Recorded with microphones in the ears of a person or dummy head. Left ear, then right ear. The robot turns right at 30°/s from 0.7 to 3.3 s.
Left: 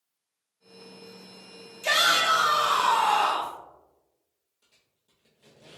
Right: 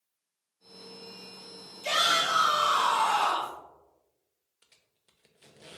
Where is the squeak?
50° right (ahead or behind), 0.6 m.